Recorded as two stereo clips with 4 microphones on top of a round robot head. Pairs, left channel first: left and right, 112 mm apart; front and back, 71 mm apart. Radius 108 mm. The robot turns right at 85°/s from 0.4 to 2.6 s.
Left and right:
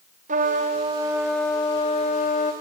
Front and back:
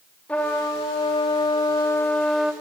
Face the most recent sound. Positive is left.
turn(degrees=105)